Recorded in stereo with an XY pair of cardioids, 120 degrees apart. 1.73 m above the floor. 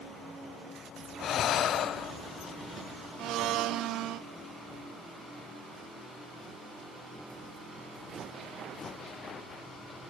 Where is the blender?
70° right, 1.4 m.